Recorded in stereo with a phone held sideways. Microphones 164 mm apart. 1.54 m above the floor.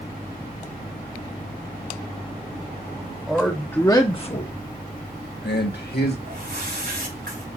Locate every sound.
3.3 s a man speaking: centre (ahead or behind), 1.4 m; by 6.2 s 85° left, 2 m
6.2 s a whoosh: 75° right (ahead or behind), 4 m